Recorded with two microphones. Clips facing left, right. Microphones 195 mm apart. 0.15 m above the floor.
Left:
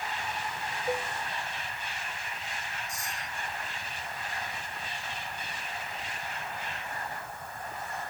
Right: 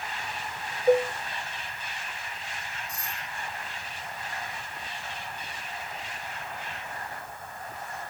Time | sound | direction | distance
0.9 | dishes clattering | 45° right (ahead or behind) | ?
2.9 | a doorbell | 60° right (ahead or behind) | ?